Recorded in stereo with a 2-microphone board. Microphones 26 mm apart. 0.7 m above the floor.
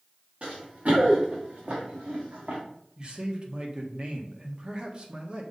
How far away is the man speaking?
About 1.4 m.